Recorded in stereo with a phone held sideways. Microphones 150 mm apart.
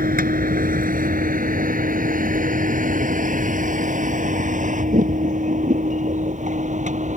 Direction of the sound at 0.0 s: 80° right.